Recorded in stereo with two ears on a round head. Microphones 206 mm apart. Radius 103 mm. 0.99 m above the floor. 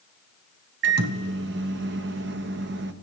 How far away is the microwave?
About 0.8 m.